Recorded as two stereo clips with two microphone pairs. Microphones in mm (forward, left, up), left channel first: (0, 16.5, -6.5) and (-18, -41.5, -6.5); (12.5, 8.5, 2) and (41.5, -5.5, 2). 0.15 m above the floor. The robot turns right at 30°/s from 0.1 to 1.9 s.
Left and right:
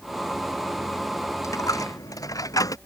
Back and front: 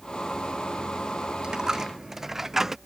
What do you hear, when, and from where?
1.4 s a dropped coin: 40° left; by 2.8 s 55° left